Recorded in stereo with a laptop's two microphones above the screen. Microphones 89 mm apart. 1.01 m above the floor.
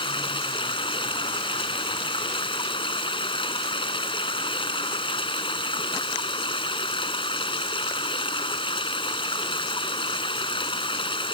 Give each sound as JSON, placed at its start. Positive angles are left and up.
{"t": 0.0, "sound": "running water", "side_deg": 85}